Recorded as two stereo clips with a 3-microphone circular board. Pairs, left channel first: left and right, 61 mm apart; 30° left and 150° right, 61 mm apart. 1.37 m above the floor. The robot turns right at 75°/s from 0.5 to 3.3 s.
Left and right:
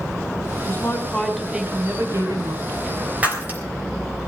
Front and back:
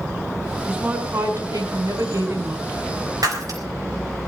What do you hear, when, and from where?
0.6 s a woman speaking: 120° left, 5 m; by 2.7 s 90° right, 5 m
3.2 s breaking glass: 155° right, 3.5 m; by 3.6 s 150° right, 3.5 m